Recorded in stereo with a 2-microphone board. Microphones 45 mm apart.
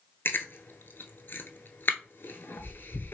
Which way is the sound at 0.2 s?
50° left (ahead or behind).